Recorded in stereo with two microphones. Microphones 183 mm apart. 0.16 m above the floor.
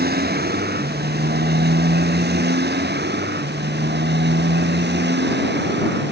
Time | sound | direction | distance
0.0 | a motorcycle | 65° right (ahead or behind) | ?